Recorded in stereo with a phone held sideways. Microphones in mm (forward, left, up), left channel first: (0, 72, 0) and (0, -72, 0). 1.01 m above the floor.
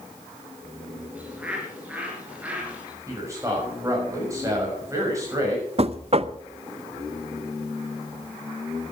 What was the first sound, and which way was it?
A bird, 10° right (ahead or behind).